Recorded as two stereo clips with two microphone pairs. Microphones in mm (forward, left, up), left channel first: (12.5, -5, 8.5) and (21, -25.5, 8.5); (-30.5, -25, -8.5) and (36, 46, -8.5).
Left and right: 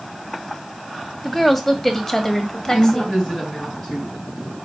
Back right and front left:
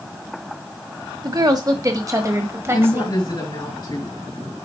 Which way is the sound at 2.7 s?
Straight behind.